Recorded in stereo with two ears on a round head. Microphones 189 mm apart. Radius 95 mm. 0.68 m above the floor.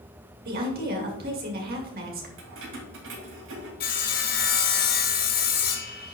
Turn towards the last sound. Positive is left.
turn(degrees=40)  # may be behind; listen again after turning